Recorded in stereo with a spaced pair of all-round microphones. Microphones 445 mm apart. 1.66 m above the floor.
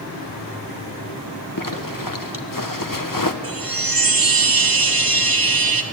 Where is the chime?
50° right (ahead or behind), 1.3 m.